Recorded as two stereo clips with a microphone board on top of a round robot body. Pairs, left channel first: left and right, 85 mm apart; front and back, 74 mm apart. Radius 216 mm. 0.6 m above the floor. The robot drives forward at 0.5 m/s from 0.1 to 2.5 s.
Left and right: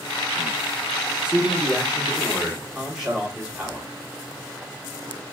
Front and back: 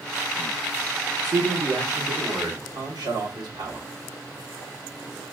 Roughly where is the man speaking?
Behind.